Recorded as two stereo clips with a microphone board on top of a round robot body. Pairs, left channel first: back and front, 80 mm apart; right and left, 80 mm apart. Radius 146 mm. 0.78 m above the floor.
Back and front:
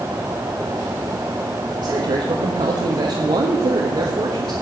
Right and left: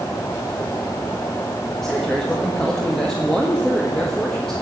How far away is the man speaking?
About 1.7 m.